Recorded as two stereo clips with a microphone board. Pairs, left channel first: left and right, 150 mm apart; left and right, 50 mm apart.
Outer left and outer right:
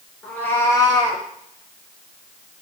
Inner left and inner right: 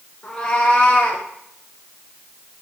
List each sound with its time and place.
0.2 s a cat meowing: 10° left (ahead or behind), 1.6 m; by 1.2 s 35° left (ahead or behind), 1.6 m